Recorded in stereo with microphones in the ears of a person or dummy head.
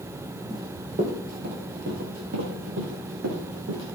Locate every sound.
0.5 s running footsteps: 35° right (ahead or behind), 2 m; by 3.8 s 70° right (ahead or behind), 5 m